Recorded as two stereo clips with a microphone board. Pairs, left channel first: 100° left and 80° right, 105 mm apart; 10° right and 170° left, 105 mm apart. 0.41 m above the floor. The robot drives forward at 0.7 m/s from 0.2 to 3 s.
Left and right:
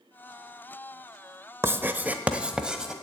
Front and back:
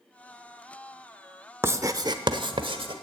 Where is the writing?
130° right, 0.7 m; by 2.9 s 165° right, 1.4 m.